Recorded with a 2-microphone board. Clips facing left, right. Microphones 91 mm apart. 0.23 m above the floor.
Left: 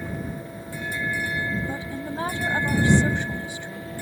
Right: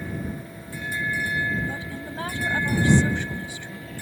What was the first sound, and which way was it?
A woman speaking, 20° left (ahead or behind).